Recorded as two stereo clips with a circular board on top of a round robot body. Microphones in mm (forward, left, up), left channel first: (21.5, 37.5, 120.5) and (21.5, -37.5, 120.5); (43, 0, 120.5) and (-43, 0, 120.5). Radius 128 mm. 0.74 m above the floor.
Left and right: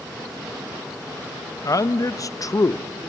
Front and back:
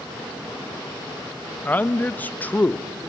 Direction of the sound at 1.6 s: 65° left.